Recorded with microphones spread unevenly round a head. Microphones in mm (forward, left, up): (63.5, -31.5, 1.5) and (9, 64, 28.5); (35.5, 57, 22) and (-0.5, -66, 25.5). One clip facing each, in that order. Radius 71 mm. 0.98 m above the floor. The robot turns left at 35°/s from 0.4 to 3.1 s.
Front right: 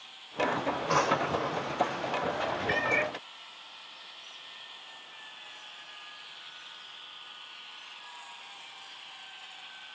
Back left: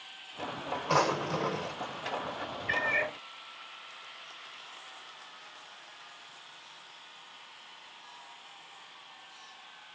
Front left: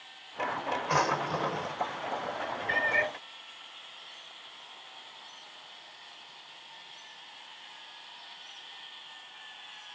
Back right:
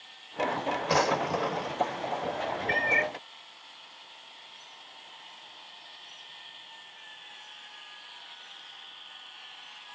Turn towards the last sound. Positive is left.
turn(degrees=-145)